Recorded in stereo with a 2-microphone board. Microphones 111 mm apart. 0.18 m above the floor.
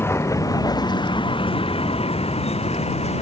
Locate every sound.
0.0 s a vehicle: 25° left (ahead or behind); by 3.2 s 85° left